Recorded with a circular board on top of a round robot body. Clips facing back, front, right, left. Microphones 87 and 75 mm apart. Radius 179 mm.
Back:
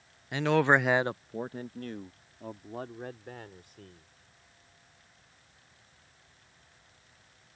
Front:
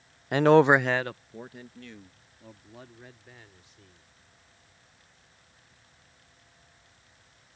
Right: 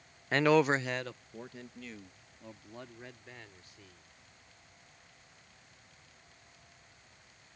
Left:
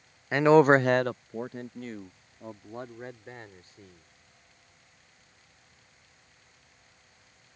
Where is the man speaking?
10° left; by 4.1 s 145° left.